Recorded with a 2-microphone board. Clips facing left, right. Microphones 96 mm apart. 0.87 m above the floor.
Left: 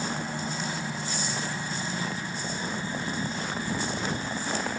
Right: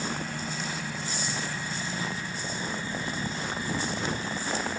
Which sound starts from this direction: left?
A helicopter, at 0.0 s.